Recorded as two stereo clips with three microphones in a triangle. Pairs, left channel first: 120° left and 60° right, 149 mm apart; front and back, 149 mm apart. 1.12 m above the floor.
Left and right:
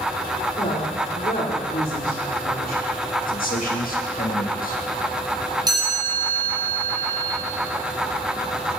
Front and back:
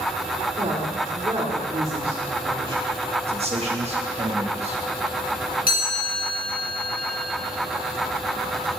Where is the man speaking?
135° left, 2 m.